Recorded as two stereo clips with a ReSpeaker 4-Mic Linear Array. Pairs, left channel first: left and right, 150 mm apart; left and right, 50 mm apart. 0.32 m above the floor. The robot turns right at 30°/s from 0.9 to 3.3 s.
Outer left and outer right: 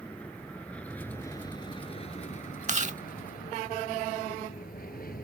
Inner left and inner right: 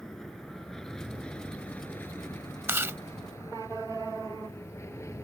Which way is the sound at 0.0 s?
10° left (ahead or behind).